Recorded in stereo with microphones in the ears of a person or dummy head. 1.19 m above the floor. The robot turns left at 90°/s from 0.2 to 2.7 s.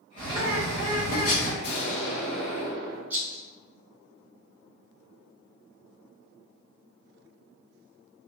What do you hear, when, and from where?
0.2 s a bird: 140° right, 1.2 m; by 1.5 s 100° left, 1.2 m
1.6 s an explosion: 75° left, 1.6 m; by 3.0 s 25° right, 1.6 m
3.1 s a rattle: 5° right (ahead or behind), 1.1 m